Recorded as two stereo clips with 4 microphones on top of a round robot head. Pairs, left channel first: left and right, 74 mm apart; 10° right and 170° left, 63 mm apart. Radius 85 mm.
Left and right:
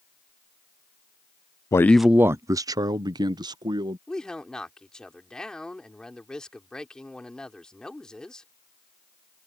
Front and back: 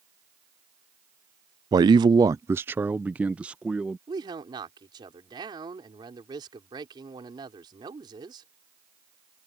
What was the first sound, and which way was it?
A man speaking, 140° left.